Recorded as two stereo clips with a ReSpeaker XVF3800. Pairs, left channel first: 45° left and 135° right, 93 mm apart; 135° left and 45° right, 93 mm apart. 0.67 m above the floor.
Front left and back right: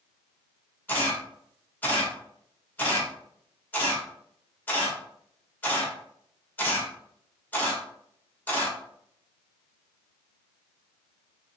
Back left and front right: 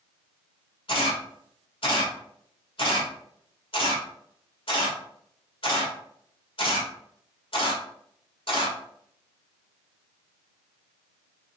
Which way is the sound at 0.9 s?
115° left.